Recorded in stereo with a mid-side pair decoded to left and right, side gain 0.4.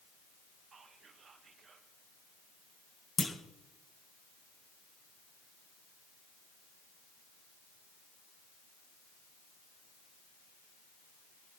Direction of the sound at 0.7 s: 55° right.